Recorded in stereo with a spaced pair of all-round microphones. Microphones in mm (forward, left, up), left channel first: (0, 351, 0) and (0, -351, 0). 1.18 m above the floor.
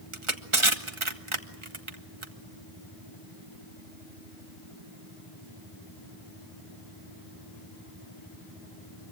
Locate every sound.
0.1 s crushing: 45° right (ahead or behind), 1.7 m